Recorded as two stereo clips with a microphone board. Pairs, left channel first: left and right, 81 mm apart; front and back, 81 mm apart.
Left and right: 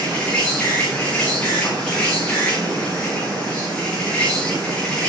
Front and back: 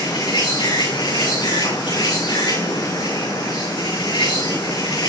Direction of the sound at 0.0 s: 15° left.